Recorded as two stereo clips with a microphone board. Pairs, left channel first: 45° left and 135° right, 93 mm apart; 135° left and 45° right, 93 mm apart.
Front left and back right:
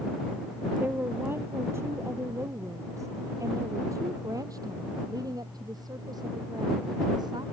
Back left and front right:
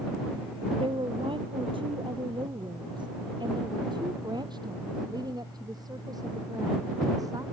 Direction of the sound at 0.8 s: 65° right.